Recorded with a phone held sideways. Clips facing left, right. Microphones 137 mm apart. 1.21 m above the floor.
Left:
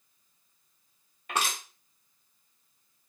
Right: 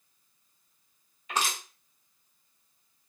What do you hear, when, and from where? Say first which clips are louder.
1.3 s crushing: even; 55° left (ahead or behind), 1.1 m